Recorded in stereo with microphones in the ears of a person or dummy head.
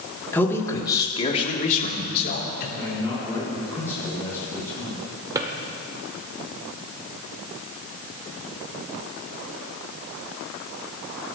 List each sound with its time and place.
0.3 s a man speaking: 5° left (ahead or behind), 3 m; by 2.7 s 55° left (ahead or behind), 4 m
2.8 s a man speaking: 10° left (ahead or behind), 6.5 m
5.3 s a drawer: 25° right (ahead or behind), 2.0 m